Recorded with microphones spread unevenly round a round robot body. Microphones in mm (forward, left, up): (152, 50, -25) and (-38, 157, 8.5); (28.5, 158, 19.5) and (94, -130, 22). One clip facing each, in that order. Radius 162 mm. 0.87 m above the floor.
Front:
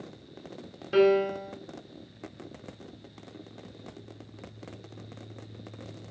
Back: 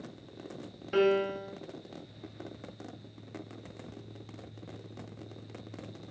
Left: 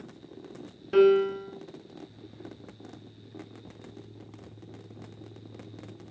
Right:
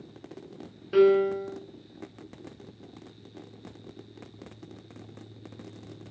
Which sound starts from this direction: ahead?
A piano, at 0.9 s.